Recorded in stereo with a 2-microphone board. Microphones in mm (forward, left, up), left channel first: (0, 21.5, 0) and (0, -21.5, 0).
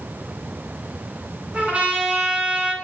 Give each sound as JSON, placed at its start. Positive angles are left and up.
{"t": 1.5, "sound": "a trumpet", "side_deg": -30, "distance_m": 2.0}